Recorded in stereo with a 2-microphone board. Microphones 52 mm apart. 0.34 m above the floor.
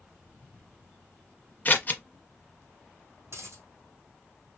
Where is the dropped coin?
55° right (ahead or behind), 3 m.